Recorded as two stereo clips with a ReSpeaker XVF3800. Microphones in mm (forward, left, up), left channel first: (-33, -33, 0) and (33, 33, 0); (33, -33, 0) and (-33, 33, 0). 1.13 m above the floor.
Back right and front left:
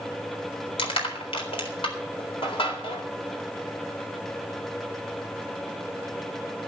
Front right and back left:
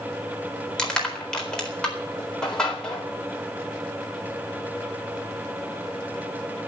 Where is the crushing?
125° right, 4 m.